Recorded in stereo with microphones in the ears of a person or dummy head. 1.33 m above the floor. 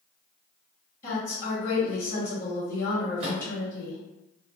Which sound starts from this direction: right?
A microwave, at 3.2 s.